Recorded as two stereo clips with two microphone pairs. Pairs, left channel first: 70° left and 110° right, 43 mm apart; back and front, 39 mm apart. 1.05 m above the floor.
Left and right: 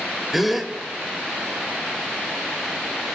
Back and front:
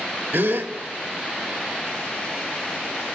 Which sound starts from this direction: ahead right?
A gasp, at 0.3 s.